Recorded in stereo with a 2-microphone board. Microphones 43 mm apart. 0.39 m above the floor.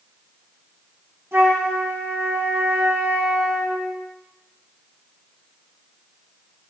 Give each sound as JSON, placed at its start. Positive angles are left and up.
{"t": 1.3, "sound": "a flute", "side_deg": -70, "distance_m": 3.0}